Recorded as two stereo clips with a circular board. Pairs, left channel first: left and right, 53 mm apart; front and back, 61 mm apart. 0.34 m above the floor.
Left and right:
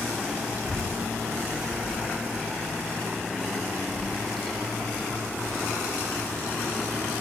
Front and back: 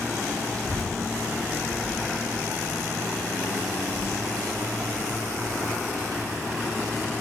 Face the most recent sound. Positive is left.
turn(degrees=160)